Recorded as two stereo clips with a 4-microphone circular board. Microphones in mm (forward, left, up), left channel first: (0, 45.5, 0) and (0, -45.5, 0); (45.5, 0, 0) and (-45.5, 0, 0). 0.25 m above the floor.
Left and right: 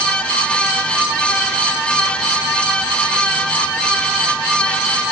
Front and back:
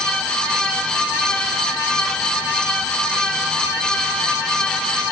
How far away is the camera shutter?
No camera shutter in this recording.